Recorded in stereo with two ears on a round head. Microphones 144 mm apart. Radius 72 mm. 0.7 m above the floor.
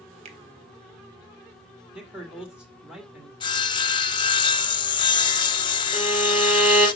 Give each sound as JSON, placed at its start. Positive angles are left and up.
{"t": 0.2, "sound": "a finger snap", "side_deg": -40, "distance_m": 1.3}
{"t": 1.9, "sound": "a man speaking", "side_deg": -5, "distance_m": 1.7}
{"t": 3.4, "sound": "sawing", "side_deg": 30, "distance_m": 1.0}
{"t": 5.9, "sound": "a violin", "side_deg": -10, "distance_m": 6.5}